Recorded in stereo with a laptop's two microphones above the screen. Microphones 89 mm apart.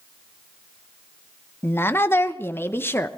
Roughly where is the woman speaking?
Left.